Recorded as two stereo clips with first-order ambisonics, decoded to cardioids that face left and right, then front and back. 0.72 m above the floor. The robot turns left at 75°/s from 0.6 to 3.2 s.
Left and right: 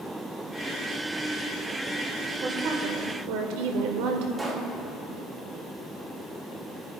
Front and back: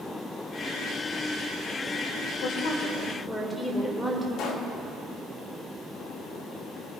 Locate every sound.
2.4 s a woman speaking: 30° right, 1.9 m; by 4.3 s 85° right, 1.9 m
4.4 s a pop: 15° right, 1.3 m